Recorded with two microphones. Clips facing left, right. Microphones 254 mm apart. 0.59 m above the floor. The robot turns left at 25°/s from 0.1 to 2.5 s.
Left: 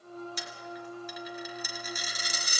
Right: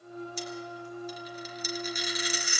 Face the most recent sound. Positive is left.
turn(degrees=45)  # may be behind; listen again after turning